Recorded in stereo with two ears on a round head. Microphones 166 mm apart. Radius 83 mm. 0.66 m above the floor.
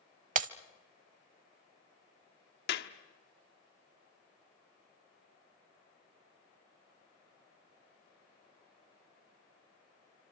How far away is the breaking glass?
About 0.6 m.